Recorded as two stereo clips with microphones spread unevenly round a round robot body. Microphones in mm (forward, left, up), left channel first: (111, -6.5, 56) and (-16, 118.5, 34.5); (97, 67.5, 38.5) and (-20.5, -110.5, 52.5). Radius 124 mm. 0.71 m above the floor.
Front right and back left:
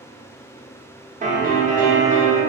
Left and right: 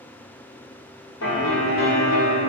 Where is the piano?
90° left, 0.7 m.